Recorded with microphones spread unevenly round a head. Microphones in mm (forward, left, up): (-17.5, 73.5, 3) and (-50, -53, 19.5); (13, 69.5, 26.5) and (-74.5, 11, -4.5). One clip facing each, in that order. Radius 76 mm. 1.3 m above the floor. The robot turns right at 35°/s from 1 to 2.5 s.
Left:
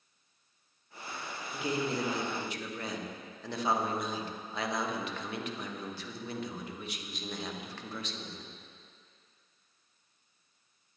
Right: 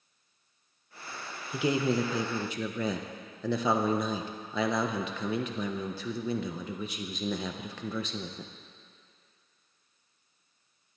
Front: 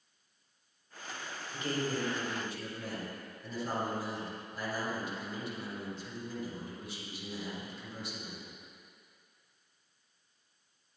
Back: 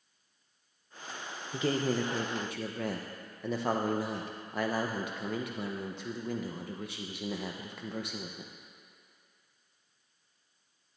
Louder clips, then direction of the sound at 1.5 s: Right 6 dB, back 5 dB; 130° right.